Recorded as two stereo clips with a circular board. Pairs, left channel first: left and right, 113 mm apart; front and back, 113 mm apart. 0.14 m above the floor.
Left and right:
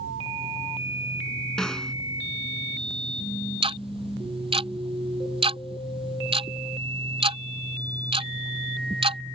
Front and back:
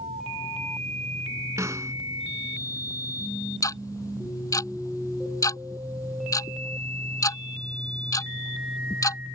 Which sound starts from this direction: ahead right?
Ticking, at 3.6 s.